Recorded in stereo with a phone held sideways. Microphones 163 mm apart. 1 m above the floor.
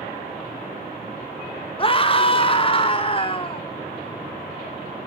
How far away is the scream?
About 0.9 m.